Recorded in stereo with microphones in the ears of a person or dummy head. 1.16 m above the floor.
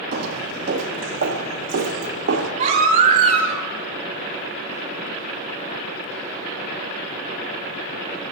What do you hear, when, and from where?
0.1 s footsteps: 60° right (ahead or behind), 2.5 m; by 2.5 s 65° right (ahead or behind), 5 m
2.6 s a baby crying: 50° right (ahead or behind), 4.5 m